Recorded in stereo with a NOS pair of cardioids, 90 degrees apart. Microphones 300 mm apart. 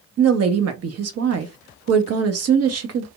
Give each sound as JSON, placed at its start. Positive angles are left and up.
{"t": 0.2, "sound": "a woman speaking", "azimuth_deg": -55, "distance_m": 0.9}